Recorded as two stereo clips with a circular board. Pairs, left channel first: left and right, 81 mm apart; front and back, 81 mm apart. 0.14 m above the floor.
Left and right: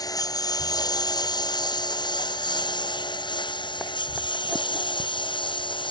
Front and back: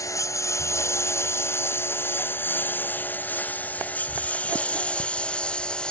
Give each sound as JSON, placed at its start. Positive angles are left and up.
{"t": 0.0, "sound": "a lawn mower", "azimuth_deg": 50}